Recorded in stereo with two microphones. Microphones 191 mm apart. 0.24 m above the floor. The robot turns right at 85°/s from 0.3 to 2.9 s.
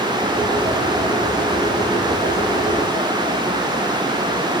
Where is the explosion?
I don't hear an explosion.